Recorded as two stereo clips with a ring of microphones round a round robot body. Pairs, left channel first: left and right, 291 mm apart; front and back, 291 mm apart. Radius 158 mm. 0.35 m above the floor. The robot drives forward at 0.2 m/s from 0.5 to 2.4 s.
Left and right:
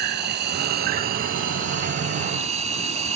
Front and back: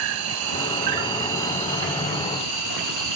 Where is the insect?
150° right, 0.7 m; by 3.2 s 160° right, 1.1 m.